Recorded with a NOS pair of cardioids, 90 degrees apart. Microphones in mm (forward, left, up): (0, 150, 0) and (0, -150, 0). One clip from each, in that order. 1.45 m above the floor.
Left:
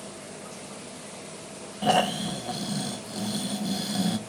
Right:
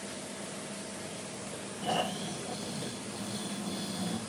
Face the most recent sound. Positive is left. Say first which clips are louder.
# left 9 dB
turn(degrees=45)